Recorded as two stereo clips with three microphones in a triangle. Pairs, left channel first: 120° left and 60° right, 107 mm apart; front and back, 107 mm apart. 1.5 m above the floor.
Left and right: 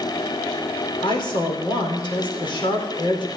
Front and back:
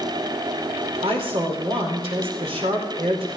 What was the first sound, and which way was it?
A woman speaking, 160° left.